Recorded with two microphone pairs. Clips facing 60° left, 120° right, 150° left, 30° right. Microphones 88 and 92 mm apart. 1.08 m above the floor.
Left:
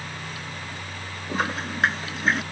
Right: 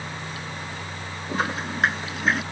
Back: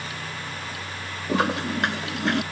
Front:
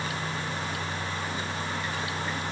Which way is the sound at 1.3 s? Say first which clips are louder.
Even, back 8 dB; 150° left.